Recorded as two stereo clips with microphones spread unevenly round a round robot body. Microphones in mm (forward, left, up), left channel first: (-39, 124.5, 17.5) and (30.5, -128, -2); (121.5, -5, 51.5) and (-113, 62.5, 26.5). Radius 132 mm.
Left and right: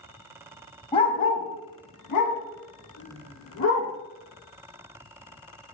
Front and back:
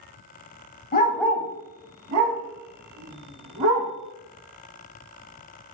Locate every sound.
0.9 s a dog barking: 35° left, 0.5 m; by 3.9 s 145° left, 2.5 m